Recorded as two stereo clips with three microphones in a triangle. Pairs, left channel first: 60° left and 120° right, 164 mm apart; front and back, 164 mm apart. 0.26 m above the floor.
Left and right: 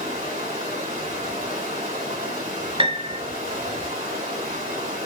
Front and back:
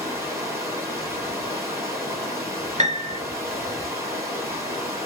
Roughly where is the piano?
Behind.